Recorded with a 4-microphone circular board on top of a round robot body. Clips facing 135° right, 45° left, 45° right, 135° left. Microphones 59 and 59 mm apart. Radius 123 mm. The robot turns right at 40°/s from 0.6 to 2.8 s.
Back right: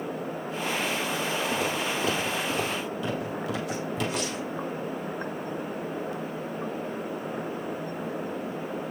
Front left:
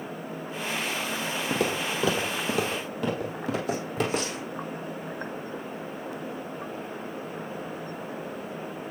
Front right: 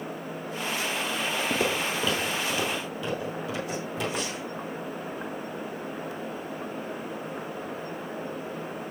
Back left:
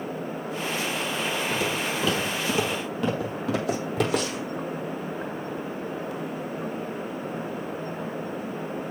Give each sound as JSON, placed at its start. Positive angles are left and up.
{"t": 1.5, "sound": "footsteps", "azimuth_deg": 10, "distance_m": 1.6}